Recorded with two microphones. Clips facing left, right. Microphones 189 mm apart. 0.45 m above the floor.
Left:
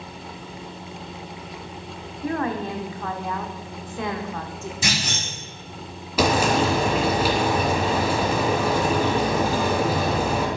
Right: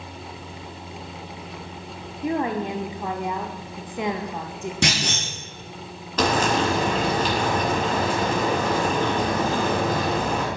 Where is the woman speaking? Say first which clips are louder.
Right 1 dB; 15° right (ahead or behind), 0.9 m.